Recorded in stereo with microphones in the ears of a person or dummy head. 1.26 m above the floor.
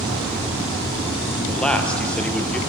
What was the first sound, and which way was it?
A man speaking, 5° left (ahead or behind).